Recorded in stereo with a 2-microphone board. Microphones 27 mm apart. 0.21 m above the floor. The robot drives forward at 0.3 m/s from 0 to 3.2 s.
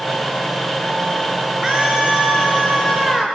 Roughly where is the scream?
Right.